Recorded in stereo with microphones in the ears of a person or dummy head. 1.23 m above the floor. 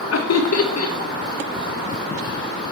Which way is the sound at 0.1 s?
70° left (ahead or behind).